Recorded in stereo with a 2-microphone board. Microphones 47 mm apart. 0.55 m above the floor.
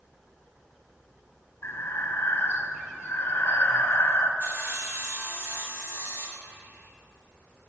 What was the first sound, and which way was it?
Breathing, 75° left (ahead or behind).